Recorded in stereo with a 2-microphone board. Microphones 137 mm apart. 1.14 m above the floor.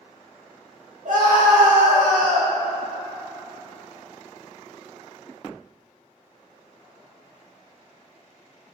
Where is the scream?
80° right, 0.6 m.